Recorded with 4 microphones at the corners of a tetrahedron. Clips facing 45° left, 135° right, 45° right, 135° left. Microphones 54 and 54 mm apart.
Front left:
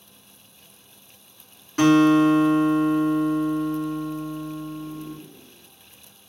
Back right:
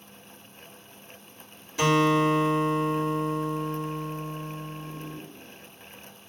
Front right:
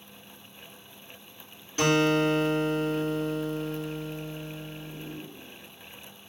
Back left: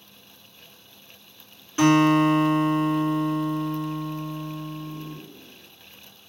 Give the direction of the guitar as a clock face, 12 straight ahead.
10 o'clock.